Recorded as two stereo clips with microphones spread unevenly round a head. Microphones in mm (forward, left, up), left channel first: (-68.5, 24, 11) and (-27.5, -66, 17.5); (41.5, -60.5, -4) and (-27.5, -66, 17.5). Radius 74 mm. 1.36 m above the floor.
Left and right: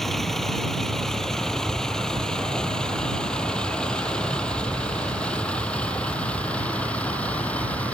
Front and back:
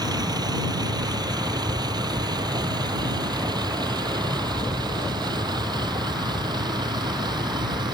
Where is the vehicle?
155° right; by 7.9 s 170° right.